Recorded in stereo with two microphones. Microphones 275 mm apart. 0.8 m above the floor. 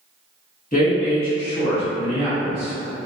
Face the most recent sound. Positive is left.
turn(degrees=5)  # may be behind; listen again after turning